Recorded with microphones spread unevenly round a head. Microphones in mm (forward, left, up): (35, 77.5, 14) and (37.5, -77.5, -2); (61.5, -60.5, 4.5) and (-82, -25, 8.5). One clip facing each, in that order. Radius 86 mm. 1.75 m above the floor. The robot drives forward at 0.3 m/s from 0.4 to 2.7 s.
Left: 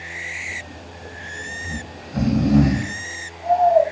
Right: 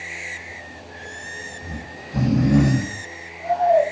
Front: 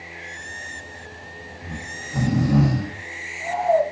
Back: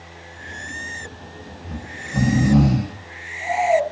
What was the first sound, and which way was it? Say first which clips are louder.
Snoring: left 2 dB, back 1 dB; 105° right.